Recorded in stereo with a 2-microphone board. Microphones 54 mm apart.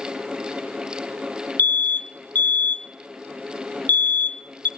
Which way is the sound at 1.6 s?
35° left (ahead or behind).